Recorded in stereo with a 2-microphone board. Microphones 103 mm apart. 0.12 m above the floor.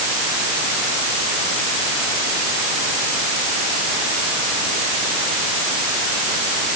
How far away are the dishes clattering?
No dishes clattering in this recording.